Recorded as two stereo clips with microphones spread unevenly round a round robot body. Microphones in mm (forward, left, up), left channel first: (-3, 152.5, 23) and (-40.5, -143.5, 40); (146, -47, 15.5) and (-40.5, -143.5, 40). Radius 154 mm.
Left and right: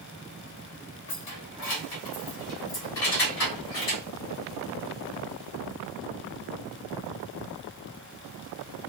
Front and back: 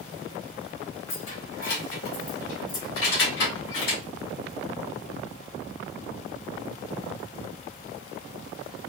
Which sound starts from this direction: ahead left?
Keys jangling, at 1.1 s.